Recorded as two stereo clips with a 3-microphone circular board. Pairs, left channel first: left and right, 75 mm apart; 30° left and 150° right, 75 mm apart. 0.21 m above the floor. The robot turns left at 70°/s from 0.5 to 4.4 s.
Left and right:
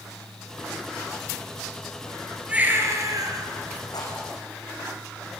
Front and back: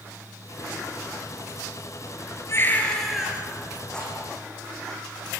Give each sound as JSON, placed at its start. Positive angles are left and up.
{"t": 2.5, "sound": "a baby crying", "azimuth_deg": -20, "distance_m": 3.5}
{"t": 3.9, "sound": "a rattle", "azimuth_deg": 110, "distance_m": 6.5}